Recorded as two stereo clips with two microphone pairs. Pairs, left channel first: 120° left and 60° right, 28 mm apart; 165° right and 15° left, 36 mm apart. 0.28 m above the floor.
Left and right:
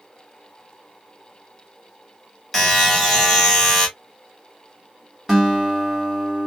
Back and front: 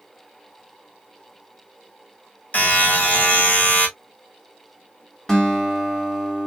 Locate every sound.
2.5 s a buzzer: 155° right, 2.5 m
5.3 s a guitar: 115° right, 1.4 m